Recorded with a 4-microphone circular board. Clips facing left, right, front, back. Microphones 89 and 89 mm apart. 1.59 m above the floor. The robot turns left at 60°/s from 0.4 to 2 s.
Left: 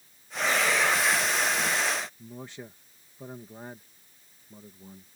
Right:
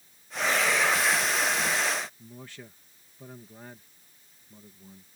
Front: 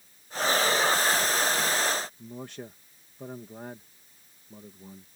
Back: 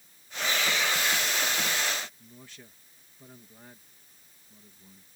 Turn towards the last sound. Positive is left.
turn(degrees=25)